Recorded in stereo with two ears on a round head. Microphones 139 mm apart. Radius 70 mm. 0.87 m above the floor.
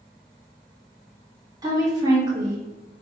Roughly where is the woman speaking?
Right.